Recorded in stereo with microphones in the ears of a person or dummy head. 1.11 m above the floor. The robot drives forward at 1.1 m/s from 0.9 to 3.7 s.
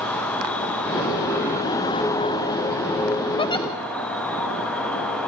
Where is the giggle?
30° left (ahead or behind), 0.8 m; by 3.7 s 20° left (ahead or behind), 1.1 m.